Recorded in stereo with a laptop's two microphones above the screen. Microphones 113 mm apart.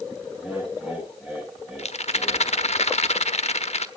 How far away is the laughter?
About 6 m.